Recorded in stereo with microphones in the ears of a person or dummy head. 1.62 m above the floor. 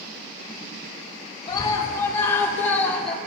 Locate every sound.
1.5 s a scream: 20° left (ahead or behind), 4.5 m; by 3.2 s 5° left (ahead or behind), 4 m